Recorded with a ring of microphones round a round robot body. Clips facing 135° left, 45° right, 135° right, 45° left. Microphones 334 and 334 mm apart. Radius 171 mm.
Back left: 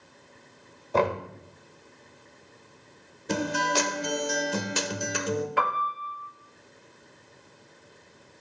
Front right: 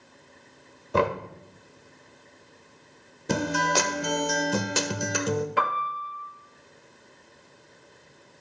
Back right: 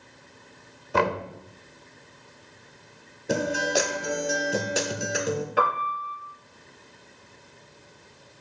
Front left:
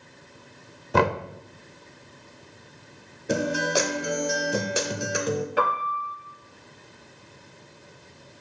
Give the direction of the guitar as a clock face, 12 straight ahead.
1 o'clock.